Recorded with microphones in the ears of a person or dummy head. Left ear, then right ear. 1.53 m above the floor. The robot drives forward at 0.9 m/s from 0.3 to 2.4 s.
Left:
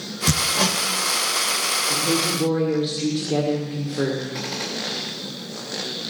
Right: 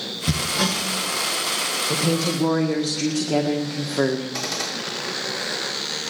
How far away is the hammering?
About 0.9 m.